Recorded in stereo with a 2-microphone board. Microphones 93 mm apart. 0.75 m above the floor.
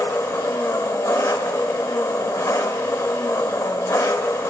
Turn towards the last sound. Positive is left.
turn(degrees=35)  # may be behind; listen again after turning